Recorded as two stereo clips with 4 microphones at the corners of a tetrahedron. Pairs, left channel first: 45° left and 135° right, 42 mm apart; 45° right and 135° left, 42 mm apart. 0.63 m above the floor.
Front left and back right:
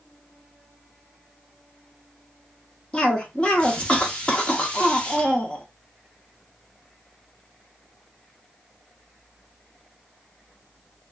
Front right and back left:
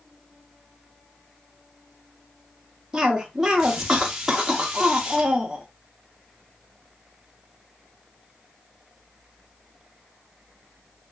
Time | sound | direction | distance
2.9 | a cough | 70° left | 0.6 m